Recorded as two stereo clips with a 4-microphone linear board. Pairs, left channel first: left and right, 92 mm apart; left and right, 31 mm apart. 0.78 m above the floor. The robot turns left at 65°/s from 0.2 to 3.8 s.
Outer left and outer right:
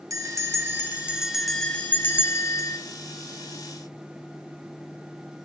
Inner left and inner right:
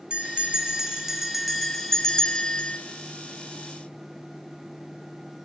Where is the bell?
100° right, 0.7 m; by 2.8 s 95° left, 0.7 m.